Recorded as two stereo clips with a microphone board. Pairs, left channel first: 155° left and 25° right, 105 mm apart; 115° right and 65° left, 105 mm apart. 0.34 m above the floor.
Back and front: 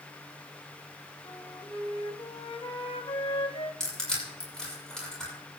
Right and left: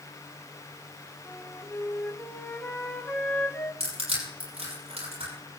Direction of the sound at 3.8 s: 75° left.